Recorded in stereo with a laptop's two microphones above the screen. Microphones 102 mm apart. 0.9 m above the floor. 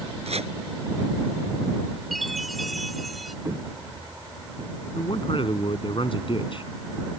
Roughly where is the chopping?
Right.